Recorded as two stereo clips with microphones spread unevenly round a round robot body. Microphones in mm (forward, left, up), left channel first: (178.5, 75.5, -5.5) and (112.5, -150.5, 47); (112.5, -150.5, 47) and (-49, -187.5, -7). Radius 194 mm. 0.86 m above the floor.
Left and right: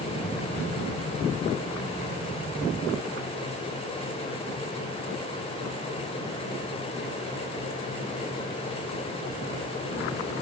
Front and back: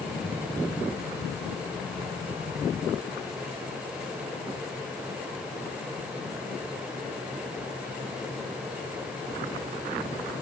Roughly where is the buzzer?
I don't hear a buzzer.